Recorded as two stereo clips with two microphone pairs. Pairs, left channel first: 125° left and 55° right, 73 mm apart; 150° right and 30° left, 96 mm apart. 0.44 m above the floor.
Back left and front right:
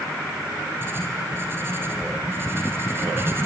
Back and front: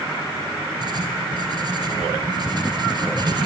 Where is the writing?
Straight ahead, 2.5 m.